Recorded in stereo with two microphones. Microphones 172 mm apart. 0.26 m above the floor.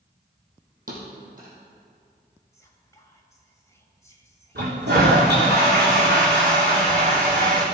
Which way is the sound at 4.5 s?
85° right.